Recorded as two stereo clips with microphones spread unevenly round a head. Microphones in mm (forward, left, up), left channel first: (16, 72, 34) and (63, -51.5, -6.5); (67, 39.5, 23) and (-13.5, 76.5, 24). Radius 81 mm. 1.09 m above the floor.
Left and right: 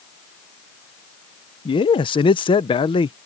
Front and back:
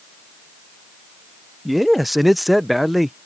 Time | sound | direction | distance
1.6 | a man speaking | 65° left | ?